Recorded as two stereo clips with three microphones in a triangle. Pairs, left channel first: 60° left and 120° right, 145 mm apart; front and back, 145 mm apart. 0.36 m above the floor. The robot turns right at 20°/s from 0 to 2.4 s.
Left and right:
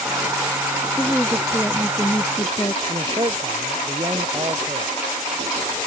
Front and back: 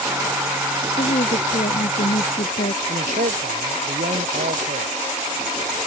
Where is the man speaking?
175° right.